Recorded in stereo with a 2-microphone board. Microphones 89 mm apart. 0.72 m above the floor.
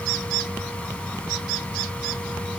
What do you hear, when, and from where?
Only background noise.